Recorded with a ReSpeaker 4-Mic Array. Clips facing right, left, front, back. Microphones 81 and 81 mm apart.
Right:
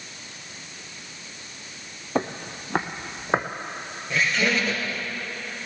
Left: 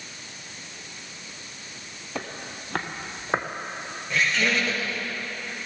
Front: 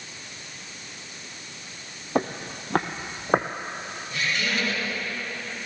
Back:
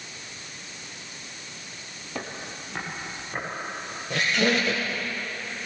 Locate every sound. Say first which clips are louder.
2.1 s footsteps: right 8 dB, front 9 dB; 40° right, 0.6 m; by 3.5 s 10° right, 1.2 m
4.1 s a squeak: right 1 dB, back 5 dB; 175° right, 5 m